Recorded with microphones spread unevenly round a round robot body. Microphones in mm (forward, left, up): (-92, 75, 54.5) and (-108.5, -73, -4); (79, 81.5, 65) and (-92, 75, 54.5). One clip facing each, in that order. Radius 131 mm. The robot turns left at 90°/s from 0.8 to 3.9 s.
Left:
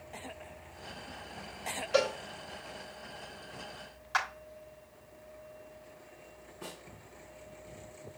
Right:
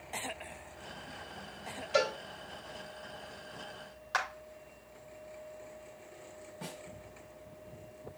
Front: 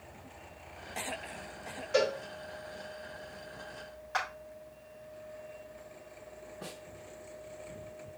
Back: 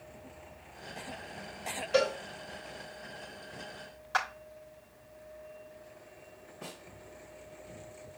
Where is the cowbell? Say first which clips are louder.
Left 2 dB, back 1 dB; 130° left, 6 m; by 2.1 s 110° left, 6 m.